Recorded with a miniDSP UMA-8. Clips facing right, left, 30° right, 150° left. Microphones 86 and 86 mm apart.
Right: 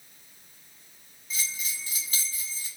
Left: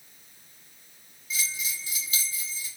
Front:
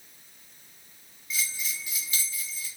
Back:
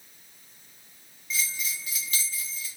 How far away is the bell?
About 1.6 m.